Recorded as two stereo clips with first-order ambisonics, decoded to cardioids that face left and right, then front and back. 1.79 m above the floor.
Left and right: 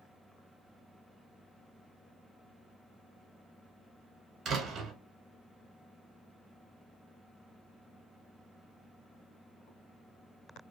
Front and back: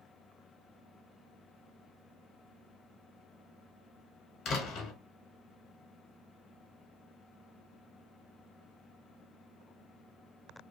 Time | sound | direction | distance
4.5 | a door slam | 40° right | 0.8 m